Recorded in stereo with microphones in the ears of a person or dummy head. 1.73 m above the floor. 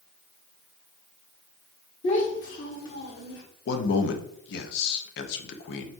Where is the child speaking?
30° left (ahead or behind), 0.9 m; by 3.4 s 65° left (ahead or behind), 2 m.